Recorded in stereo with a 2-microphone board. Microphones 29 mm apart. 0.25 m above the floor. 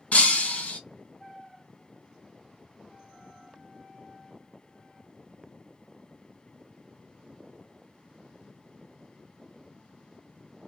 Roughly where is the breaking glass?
Left.